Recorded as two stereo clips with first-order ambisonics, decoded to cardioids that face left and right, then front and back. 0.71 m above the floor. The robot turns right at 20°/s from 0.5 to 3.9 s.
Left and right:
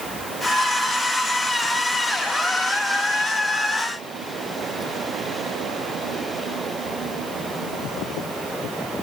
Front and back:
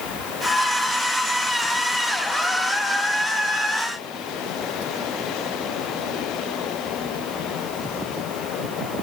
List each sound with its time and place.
Only background noise.